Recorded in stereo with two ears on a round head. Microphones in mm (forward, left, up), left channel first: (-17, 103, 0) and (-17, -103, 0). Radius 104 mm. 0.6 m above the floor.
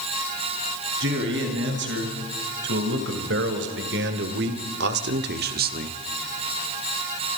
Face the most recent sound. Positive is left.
turn(degrees=-35)  # may be behind; listen again after turning